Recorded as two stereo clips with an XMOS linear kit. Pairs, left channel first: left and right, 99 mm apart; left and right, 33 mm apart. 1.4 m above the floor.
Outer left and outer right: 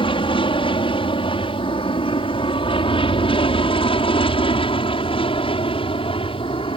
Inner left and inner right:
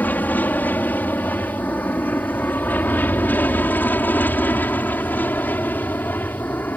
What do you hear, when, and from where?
0.0 s an aircraft: 70° left (ahead or behind); by 6.8 s 75° left (ahead or behind)